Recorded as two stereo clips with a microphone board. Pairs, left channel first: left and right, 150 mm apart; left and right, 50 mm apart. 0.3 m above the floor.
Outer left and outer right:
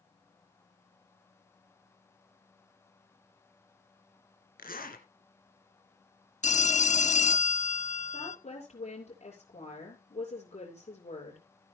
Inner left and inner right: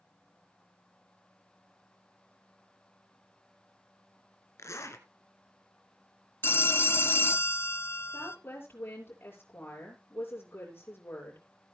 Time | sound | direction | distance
4.6 | a zipper | 75° left (ahead or behind) | 2 m
6.4 | a phone ringing | 50° left (ahead or behind) | 0.7 m
8.1 | a woman speaking | 50° left (ahead or behind) | 6.5 m